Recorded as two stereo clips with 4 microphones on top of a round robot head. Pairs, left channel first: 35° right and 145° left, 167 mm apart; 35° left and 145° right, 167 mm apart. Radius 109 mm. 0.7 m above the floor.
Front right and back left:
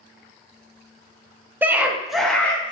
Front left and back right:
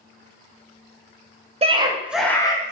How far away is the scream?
About 0.7 m.